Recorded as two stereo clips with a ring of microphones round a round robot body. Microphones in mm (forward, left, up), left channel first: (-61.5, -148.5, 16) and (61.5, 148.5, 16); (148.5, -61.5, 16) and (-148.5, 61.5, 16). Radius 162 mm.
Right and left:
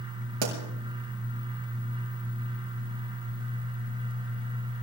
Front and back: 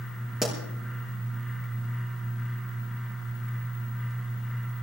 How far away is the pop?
About 4.5 m.